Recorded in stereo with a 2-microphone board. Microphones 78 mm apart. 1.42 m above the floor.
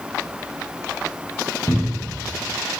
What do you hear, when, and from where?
1.7 s a cupboard door: 55° left (ahead or behind), 0.7 m